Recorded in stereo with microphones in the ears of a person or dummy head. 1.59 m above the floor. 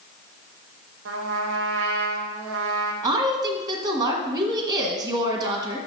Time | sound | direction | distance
1.1 | a trumpet | 80° right | 0.9 m
3.0 | a woman speaking | 25° right (ahead or behind) | 1.5 m